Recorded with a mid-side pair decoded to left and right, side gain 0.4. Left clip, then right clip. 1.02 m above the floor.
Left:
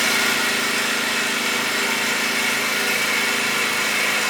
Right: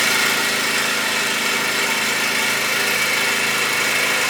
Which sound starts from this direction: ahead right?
An engine running, at 0.0 s.